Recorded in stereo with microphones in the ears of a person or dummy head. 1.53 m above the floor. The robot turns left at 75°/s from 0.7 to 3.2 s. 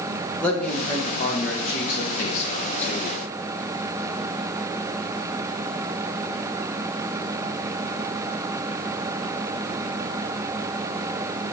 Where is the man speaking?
170° left, 1.3 m; by 3.1 s 15° right, 1.3 m.